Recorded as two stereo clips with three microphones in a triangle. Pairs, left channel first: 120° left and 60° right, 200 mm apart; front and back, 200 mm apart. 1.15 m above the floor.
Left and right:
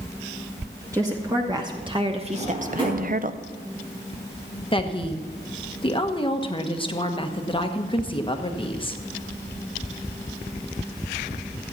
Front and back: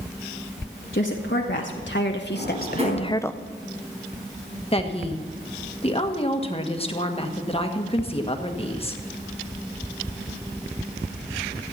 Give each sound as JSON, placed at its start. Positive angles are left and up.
{"t": 0.9, "sound": "a woman speaking", "azimuth_deg": 15, "distance_m": 1.7}
{"t": 2.3, "sound": "a drawer", "azimuth_deg": -125, "distance_m": 4.5}
{"t": 4.7, "sound": "a woman speaking", "azimuth_deg": 55, "distance_m": 1.3}